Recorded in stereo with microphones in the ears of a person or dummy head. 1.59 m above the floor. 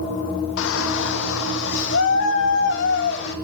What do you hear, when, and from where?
0.6 s a shout: 70° left (ahead or behind), 2.5 m; by 3.4 s 60° left (ahead or behind), 5 m